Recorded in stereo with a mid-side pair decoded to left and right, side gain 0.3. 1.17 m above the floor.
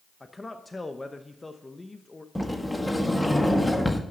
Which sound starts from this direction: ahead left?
A man speaking, at 0.2 s.